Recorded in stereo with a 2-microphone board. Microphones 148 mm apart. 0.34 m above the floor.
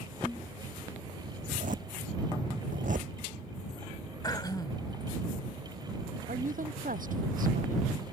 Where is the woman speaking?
65° right (ahead or behind).